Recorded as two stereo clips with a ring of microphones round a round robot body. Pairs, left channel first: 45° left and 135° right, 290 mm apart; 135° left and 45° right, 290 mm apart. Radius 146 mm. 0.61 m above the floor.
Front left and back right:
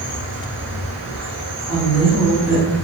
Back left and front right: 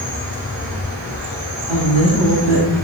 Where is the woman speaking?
15° left, 1.3 m.